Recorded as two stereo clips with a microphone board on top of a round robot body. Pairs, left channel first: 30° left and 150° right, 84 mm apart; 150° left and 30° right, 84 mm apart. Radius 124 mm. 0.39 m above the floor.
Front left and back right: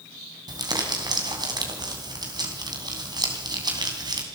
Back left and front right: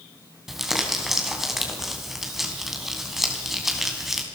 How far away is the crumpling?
About 3.5 m.